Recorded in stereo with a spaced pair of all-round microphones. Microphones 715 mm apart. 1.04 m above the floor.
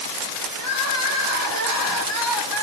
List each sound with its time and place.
0.6 s crying: 20° left (ahead or behind), 2.5 m